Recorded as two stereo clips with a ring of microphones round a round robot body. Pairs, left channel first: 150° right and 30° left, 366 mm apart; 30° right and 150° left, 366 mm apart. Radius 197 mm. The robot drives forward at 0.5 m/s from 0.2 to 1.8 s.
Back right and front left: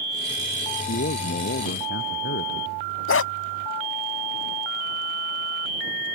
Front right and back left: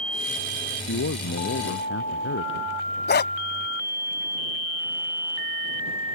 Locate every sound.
0.9 s a man speaking: 85° right; by 2.7 s 90° right
3.1 s a dog barking: 95° right